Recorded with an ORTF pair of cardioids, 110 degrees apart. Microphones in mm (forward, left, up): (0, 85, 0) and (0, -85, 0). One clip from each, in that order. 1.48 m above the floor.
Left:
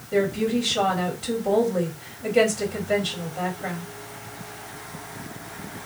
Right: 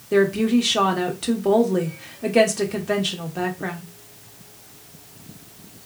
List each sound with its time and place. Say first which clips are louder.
0.1 s a woman speaking: right 4 dB; 65° right, 1.3 m